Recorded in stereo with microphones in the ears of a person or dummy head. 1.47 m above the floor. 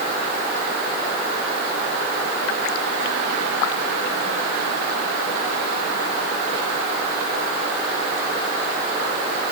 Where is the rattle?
No rattle in this recording.